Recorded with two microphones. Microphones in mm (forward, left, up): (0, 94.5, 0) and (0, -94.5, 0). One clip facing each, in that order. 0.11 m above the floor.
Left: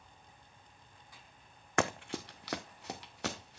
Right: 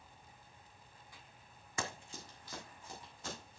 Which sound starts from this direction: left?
Running footsteps, at 1.8 s.